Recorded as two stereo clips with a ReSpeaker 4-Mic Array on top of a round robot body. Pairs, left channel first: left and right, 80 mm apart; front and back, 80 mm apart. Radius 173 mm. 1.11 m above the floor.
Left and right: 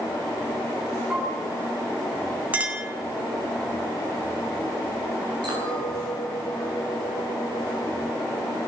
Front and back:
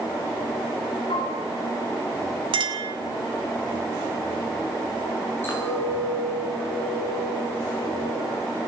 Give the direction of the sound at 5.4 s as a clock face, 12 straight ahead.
2 o'clock.